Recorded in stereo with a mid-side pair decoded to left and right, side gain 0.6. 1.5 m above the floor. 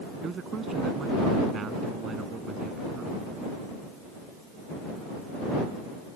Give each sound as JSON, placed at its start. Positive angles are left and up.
{"t": 0.2, "sound": "a man speaking", "azimuth_deg": -40}